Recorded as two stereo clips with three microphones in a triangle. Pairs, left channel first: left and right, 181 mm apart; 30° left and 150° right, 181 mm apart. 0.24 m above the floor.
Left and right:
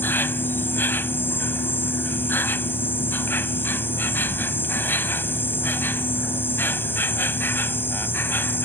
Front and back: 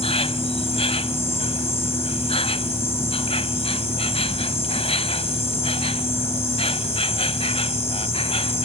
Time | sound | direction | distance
0.0 | an insect | 20° left | ?